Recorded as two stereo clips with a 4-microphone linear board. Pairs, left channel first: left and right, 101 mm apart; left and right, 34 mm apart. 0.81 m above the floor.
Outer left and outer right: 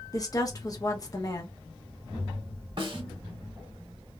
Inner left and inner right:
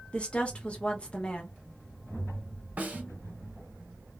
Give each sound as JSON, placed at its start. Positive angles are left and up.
{"t": 0.1, "sound": "a woman speaking", "side_deg": 35, "distance_m": 0.7}
{"t": 2.8, "sound": "a snare drum", "side_deg": -55, "distance_m": 1.3}